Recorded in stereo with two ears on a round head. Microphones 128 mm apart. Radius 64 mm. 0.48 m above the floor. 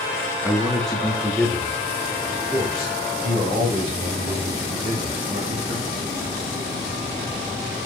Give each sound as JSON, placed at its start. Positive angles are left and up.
{"t": 0.4, "sound": "a man speaking", "side_deg": 5, "distance_m": 1.1}